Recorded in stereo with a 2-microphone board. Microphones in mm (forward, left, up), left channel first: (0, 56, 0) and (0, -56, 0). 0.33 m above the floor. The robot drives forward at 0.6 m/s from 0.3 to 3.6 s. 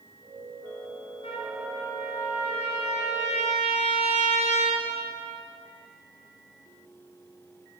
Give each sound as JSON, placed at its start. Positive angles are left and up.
{"t": 1.2, "sound": "a trumpet", "side_deg": 65, "distance_m": 3.5}